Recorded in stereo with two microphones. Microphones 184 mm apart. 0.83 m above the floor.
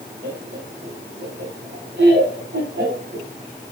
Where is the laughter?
75° right (ahead or behind), 6 m.